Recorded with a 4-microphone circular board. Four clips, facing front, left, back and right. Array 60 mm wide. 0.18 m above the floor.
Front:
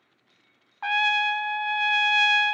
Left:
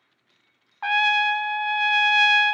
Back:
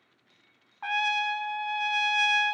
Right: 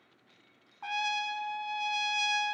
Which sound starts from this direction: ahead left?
A trumpet, at 0.8 s.